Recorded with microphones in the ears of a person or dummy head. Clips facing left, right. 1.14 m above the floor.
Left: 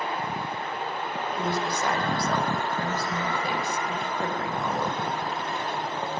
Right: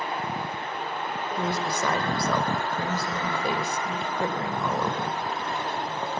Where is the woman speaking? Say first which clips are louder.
Even; 75° right (ahead or behind), 4.5 m.